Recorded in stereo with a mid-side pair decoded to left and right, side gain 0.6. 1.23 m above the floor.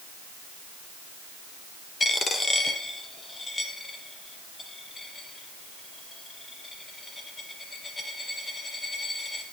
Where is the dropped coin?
20° left, 4.5 m.